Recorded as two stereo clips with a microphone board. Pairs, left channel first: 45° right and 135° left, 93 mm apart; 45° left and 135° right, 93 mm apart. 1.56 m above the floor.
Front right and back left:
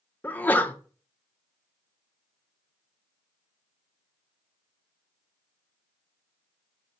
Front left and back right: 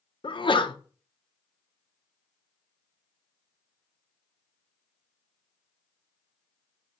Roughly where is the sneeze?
Ahead left.